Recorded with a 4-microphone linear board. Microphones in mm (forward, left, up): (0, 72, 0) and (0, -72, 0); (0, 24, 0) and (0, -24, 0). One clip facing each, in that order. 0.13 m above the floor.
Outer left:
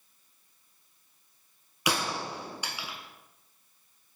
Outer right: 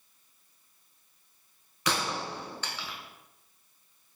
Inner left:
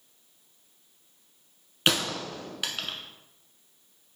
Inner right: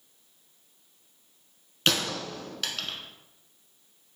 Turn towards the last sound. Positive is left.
turn(degrees=10)  # may be behind; listen again after turning